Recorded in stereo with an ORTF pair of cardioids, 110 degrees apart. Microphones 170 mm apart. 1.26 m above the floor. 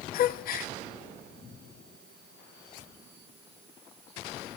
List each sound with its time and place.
0.1 s a gasp: 60° left, 0.7 m